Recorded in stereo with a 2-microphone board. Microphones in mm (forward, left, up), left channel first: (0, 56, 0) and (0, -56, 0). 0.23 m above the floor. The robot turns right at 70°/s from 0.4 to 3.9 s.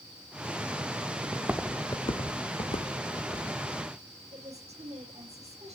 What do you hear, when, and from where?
1.3 s footsteps: 35° right (ahead or behind), 1.0 m; by 3.5 s centre (ahead or behind), 1.9 m
4.3 s a woman speaking: 65° right (ahead or behind), 9 m